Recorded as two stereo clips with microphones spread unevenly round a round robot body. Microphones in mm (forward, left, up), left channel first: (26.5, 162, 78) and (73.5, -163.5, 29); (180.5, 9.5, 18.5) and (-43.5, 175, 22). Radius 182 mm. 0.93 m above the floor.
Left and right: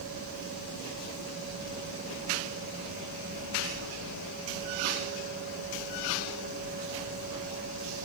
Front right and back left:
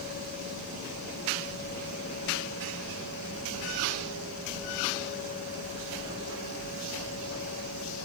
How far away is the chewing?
I don't hear chewing.